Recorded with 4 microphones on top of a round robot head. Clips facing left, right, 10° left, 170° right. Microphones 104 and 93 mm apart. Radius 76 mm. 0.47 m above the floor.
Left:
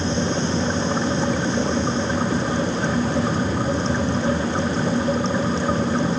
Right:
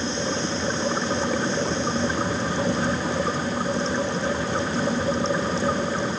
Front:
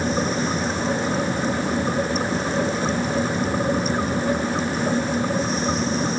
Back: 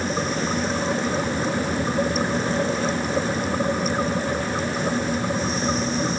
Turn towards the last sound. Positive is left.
No sound to turn to.